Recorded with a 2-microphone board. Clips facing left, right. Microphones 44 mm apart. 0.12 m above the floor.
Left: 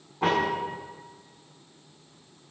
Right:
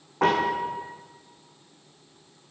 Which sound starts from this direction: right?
A piano, at 0.2 s.